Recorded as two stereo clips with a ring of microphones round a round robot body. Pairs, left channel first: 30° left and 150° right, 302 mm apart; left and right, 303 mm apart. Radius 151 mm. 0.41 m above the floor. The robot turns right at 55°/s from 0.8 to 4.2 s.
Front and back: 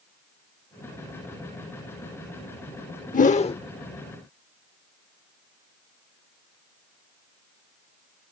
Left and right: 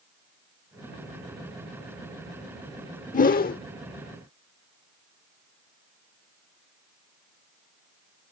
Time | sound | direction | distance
3.1 | a whoosh | 60° left | ?